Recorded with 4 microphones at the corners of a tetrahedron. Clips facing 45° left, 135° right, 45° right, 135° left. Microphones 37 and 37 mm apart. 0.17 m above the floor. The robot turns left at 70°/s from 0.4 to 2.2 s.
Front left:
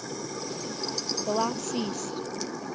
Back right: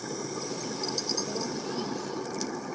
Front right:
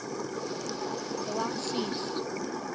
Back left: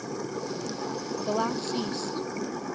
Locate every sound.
1.3 s a woman speaking: 75° left; by 2.6 s 10° left